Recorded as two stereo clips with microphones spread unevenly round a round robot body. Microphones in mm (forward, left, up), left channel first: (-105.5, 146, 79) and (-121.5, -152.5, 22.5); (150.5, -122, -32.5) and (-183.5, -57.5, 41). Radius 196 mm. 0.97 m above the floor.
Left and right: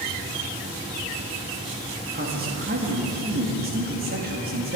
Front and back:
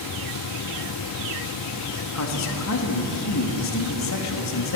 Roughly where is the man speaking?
Ahead right.